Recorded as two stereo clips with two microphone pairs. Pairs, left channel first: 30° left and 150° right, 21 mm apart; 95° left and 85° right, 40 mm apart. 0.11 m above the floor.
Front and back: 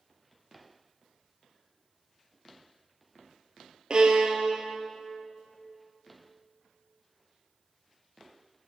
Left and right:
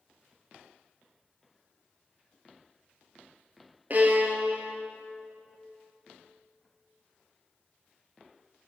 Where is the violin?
115° right, 1.3 m.